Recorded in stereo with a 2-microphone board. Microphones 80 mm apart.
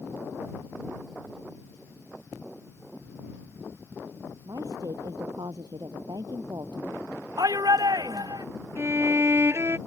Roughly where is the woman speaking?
Right.